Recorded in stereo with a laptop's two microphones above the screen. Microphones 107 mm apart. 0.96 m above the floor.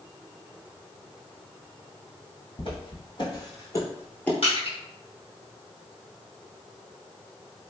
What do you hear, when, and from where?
2.6 s footsteps: 50° left (ahead or behind), 1.8 m; by 4.3 s 15° left (ahead or behind), 1.0 m
4.4 s crushing: 65° left (ahead or behind), 1.4 m